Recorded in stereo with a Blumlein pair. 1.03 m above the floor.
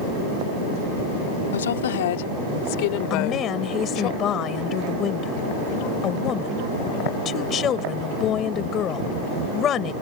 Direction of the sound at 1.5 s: 65° left.